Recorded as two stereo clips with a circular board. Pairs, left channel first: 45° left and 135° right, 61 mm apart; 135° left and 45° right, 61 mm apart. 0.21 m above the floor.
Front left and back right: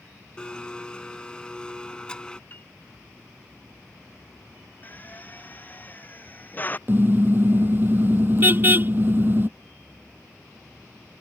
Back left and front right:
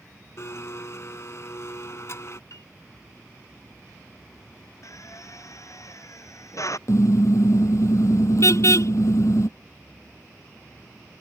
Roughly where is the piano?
Left.